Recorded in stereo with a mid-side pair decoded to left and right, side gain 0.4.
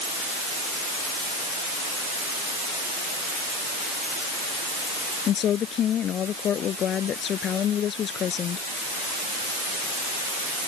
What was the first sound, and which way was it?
A woman speaking, 70° left.